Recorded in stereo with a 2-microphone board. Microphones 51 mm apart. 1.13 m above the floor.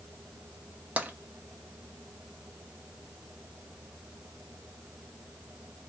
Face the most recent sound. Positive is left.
turn(degrees=-30)  # may be behind; listen again after turning